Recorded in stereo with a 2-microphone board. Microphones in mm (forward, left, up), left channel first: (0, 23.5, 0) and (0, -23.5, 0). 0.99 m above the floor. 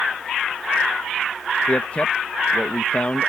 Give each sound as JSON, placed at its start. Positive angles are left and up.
{"t": 1.7, "sound": "a man speaking", "side_deg": 30}